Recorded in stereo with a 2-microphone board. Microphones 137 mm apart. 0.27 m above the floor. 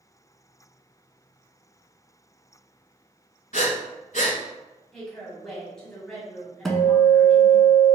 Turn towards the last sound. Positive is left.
turn(degrees=0)  # may be behind; listen again after turning